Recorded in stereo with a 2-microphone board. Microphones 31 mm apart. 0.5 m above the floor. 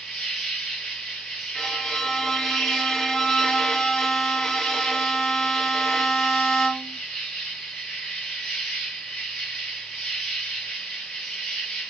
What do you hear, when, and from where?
0.0 s an insect: 35° left (ahead or behind), 2 m
1.6 s a violin: 20° left (ahead or behind), 0.5 m